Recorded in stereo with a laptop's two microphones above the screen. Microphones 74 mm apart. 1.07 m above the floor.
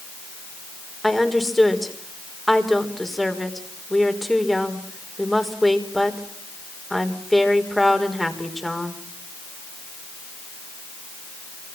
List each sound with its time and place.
1.0 s a woman speaking: centre (ahead or behind), 4.5 m